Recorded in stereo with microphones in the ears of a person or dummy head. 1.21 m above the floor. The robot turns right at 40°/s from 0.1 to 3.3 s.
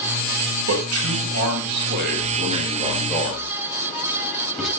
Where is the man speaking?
75° right (ahead or behind), 7.5 m; by 4.7 s centre (ahead or behind), 7.5 m.